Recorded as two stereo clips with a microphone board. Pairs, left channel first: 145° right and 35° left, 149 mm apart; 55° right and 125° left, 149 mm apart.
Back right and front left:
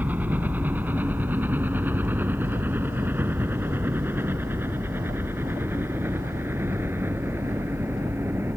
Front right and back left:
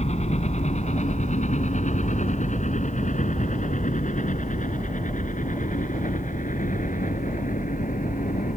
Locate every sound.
0.0 s a helicopter: 40° right